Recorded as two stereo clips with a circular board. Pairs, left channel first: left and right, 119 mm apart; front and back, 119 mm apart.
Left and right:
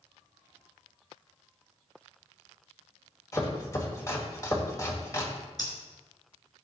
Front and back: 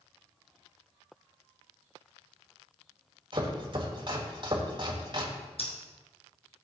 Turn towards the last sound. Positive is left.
turn(degrees=35)